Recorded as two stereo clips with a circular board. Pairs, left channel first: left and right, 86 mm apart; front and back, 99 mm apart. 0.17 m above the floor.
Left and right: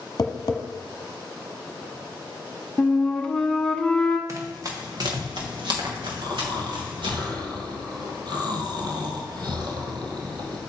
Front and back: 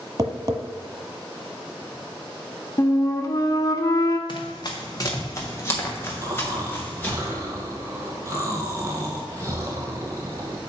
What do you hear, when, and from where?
0.2 s tapping: 130° left, 1.0 m
2.8 s a flute: 15° left, 0.8 m
4.3 s running footsteps: 35° right, 2.0 m; by 7.2 s 75° right, 4 m
6.2 s snoring: 125° right, 1.7 m